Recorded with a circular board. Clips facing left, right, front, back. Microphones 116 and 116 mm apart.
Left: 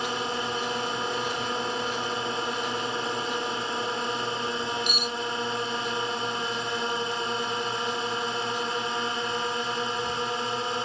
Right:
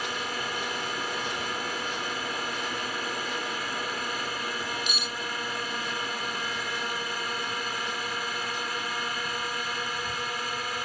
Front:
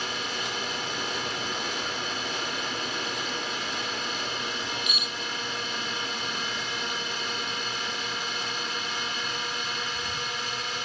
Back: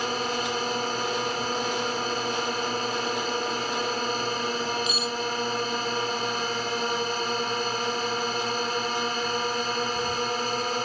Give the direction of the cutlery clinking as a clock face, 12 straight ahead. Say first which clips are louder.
Left 4 dB, back 7 dB; 8 o'clock.